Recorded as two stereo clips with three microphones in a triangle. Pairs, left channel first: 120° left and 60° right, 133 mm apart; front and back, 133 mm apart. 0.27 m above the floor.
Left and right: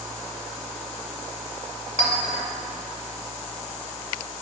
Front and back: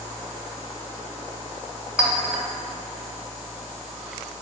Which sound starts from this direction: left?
A clink, at 2.0 s.